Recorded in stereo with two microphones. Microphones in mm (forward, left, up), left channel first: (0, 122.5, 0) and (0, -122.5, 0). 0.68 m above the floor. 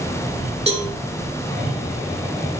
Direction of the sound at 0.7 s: 30° right (ahead or behind).